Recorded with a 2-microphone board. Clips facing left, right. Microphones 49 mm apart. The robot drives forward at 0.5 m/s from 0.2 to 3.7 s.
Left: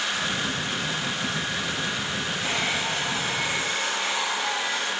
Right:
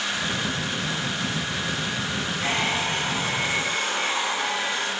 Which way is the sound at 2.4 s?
45° right (ahead or behind).